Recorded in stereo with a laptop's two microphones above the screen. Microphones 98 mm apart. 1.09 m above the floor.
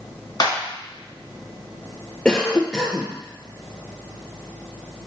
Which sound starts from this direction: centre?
A cough, at 2.2 s.